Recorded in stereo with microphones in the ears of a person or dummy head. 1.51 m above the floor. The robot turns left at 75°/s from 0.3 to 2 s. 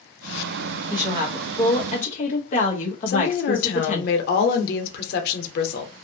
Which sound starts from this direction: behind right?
A woman speaking, at 0.9 s.